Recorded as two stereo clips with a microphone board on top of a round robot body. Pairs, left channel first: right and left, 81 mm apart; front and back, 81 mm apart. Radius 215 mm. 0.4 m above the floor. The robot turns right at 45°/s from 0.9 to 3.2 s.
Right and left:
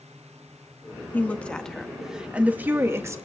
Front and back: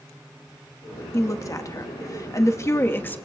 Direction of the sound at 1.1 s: 35° right.